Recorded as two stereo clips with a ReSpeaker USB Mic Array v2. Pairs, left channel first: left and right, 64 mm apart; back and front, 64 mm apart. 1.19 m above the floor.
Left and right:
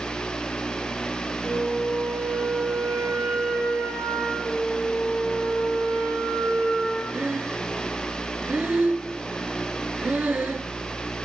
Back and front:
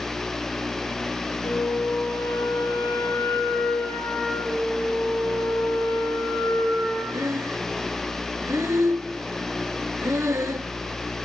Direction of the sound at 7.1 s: 30° right.